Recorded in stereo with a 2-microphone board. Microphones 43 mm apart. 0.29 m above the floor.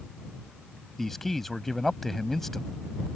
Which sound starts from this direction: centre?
A man speaking, at 1.0 s.